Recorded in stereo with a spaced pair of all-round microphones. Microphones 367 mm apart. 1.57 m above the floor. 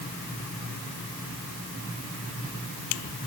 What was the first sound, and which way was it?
Only background noise.